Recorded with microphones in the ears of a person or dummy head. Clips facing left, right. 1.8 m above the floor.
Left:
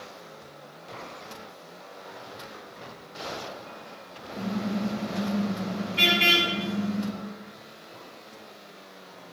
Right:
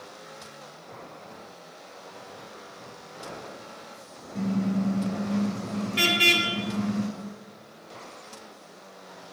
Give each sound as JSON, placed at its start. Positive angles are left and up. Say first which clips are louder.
{"t": 4.3, "sound": "a car horn", "louder": "right 3 dB", "side_deg": -70, "distance_m": 4.5}